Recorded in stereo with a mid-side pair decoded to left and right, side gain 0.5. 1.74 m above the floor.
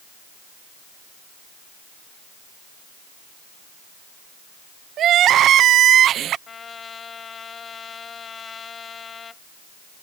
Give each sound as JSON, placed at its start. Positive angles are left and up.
{"t": 5.0, "sound": "crying", "azimuth_deg": -60}
{"t": 6.5, "sound": "a trumpet", "azimuth_deg": 40}